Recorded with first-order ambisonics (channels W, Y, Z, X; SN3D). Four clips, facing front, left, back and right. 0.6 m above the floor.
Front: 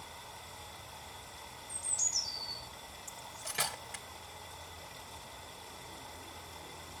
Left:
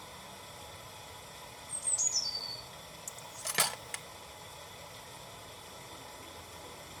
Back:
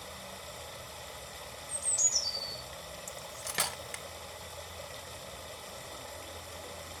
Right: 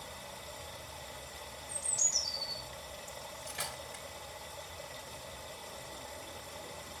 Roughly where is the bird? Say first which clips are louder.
Right 1 dB, back 4 dB; behind.